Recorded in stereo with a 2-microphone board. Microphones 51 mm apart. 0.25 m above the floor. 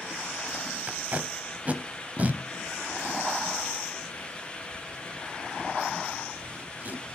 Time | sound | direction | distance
0.9 | tape being pulled | 30° right (ahead or behind) | 0.7 m